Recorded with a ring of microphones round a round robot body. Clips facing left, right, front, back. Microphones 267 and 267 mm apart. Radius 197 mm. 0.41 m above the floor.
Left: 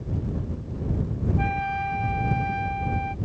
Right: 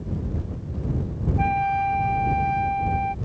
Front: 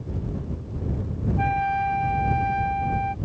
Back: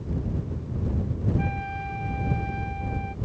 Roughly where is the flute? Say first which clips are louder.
Right 3 dB, front 4 dB; ahead.